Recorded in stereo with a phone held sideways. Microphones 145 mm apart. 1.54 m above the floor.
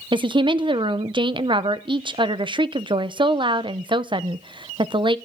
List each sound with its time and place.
0.1 s a woman speaking: 35° right (ahead or behind), 0.7 m